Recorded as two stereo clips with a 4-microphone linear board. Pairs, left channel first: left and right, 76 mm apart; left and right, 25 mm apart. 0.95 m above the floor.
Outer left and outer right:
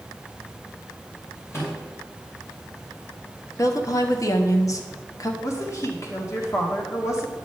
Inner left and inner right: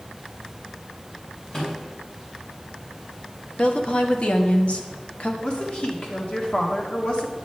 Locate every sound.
1.5 s a microwave: 40° left (ahead or behind), 4 m
3.6 s a woman speaking: 50° left (ahead or behind), 1.3 m
5.4 s a woman speaking: 45° left (ahead or behind), 2 m